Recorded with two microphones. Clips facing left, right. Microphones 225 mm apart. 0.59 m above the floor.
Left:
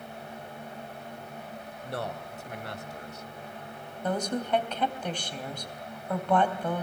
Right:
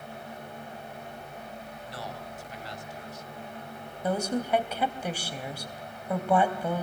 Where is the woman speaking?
10° right (ahead or behind), 3.5 m.